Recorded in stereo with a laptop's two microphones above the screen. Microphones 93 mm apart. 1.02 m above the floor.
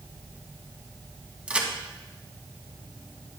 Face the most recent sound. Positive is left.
turn(degrees=-15)  # may be behind; listen again after turning